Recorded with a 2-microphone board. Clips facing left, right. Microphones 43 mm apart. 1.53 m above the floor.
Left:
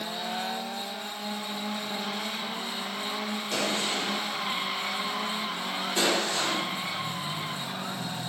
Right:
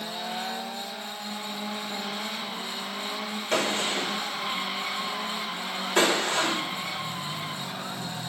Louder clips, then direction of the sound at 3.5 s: Right 4 dB; 40° right (ahead or behind).